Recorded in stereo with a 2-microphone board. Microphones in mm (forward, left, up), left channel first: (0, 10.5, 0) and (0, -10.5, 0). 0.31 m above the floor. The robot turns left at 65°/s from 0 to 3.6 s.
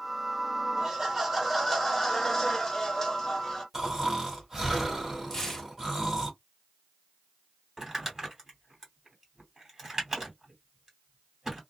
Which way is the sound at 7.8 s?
15° right (ahead or behind).